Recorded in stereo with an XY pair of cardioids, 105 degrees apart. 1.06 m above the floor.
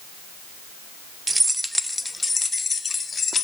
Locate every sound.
1.3 s keys jangling: 20° right, 0.8 m; by 3.5 s 35° left, 1.9 m